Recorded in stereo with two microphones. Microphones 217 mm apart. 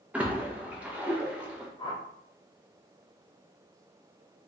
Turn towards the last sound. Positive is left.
turn(degrees=20)  # may be behind; listen again after turning